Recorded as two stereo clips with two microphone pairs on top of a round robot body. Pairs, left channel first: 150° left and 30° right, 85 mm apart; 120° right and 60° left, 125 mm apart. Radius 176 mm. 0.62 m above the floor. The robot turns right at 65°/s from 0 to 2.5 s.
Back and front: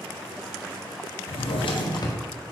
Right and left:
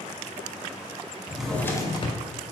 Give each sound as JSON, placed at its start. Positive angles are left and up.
{"t": 1.3, "sound": "a drawer", "azimuth_deg": 140, "distance_m": 0.5}